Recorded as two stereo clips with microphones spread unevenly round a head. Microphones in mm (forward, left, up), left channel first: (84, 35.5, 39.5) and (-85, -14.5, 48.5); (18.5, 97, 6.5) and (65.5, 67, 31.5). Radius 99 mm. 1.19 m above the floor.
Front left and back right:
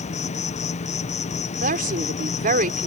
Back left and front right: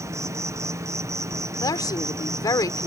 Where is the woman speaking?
155° left.